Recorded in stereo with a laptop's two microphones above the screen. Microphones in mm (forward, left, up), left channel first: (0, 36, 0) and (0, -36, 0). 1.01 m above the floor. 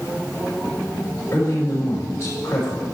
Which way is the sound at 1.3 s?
35° left (ahead or behind).